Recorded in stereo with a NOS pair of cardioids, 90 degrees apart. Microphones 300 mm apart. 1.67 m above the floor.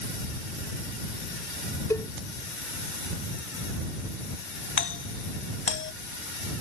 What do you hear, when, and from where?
1.9 s a cowbell: 10° left
4.8 s a doorbell: 40° left